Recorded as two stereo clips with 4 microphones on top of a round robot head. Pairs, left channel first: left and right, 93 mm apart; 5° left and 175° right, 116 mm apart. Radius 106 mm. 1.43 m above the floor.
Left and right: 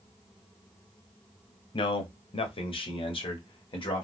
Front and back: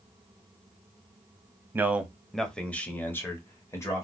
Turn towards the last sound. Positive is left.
turn(degrees=70)